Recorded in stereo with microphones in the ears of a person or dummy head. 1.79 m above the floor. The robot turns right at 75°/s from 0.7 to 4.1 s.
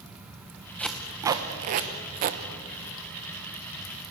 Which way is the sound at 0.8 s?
15° left (ahead or behind).